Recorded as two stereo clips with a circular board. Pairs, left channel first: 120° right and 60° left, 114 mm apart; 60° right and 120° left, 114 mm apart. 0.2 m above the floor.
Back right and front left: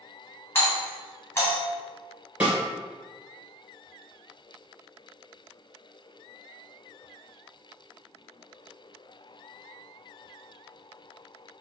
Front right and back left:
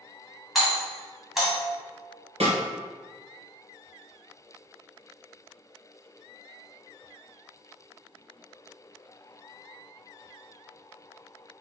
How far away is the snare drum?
About 1.6 m.